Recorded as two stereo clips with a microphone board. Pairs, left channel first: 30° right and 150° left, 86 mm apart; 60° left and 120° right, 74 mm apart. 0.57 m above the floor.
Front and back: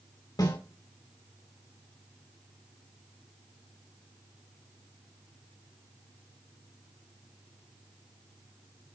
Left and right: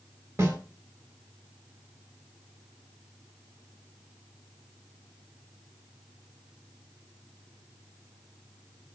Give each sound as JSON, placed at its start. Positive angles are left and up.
{"t": 0.4, "sound": "a snare drum", "azimuth_deg": -65, "distance_m": 3.5}